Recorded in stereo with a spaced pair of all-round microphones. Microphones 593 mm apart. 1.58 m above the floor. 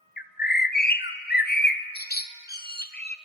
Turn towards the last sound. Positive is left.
turn(degrees=15)  # may be behind; listen again after turning